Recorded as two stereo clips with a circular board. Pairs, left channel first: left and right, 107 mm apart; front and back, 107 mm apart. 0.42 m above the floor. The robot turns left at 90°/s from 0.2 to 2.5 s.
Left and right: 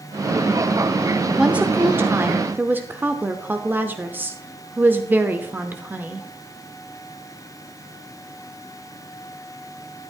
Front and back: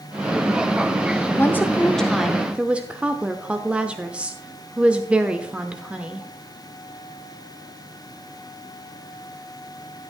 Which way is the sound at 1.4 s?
20° right.